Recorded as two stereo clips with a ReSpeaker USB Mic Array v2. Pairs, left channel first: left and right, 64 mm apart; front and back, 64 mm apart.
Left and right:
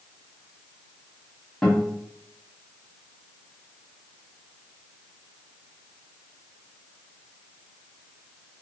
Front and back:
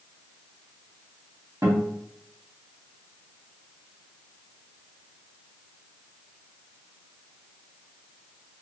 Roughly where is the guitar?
Behind.